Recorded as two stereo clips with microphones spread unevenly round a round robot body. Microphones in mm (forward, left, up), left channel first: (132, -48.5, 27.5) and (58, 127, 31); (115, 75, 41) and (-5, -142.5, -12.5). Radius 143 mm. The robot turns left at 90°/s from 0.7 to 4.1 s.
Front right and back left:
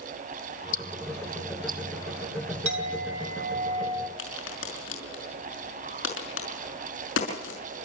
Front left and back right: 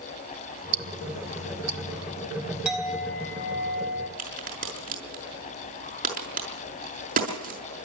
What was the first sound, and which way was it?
Ticking, 85° right.